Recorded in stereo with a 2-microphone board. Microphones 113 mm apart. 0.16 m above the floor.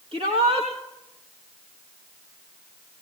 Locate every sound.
0.1 s a shout: 65° right (ahead or behind), 3.5 m